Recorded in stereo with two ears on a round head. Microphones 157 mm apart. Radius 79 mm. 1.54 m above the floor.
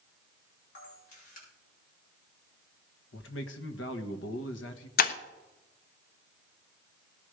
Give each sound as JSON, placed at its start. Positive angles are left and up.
{"t": 0.8, "sound": "a camera shutter", "side_deg": 55, "distance_m": 5.5}
{"t": 3.1, "sound": "a man speaking", "side_deg": 75, "distance_m": 1.5}
{"t": 5.0, "sound": "breaking glass", "side_deg": 50, "distance_m": 1.0}